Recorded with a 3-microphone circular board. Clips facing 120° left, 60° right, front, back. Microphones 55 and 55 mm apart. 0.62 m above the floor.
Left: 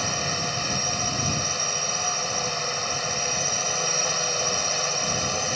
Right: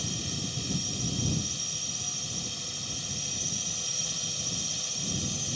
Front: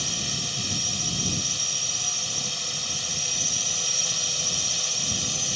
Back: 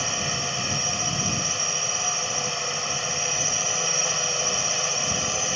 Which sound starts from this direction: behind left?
A drone, at 0.0 s.